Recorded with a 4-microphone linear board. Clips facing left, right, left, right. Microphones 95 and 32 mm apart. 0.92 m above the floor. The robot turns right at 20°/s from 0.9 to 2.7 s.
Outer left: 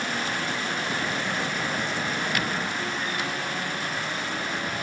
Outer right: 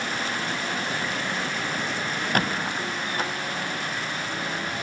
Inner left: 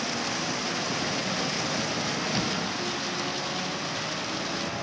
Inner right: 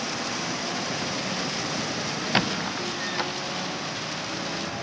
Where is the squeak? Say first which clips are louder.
Outer right 2 dB, inner right 3 dB; 45° right (ahead or behind); by 3.3 s 35° right (ahead or behind).